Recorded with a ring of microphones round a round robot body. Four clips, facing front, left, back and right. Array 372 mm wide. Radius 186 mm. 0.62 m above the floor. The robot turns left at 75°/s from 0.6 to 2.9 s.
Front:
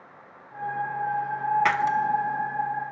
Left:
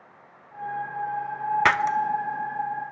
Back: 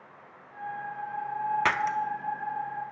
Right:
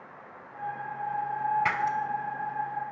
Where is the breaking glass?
95° left, 0.6 m; by 2.0 s 70° left, 0.6 m.